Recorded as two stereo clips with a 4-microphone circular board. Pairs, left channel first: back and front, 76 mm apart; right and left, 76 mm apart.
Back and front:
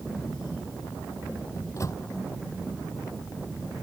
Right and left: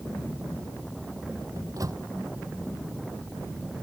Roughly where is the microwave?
Behind left.